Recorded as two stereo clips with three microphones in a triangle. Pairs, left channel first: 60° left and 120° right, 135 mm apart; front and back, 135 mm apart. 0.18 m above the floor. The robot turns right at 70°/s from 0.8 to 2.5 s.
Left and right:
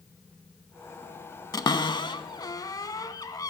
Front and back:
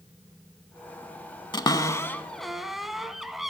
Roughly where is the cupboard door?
Ahead left.